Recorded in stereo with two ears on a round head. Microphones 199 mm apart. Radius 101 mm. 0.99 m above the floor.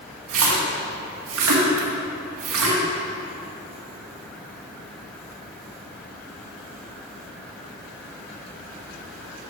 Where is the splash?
65° right (ahead or behind), 1.8 m.